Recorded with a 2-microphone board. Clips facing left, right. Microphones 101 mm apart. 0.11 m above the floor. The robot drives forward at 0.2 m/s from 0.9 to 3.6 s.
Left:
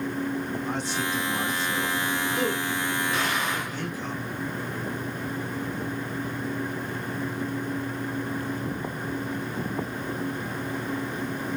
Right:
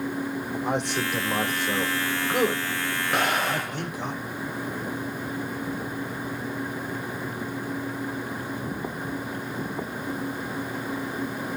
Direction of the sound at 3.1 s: 60° right (ahead or behind).